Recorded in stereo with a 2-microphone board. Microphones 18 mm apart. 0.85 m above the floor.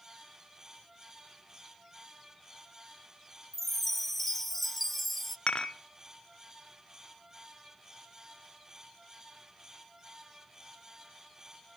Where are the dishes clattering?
65° left (ahead or behind), 0.9 m.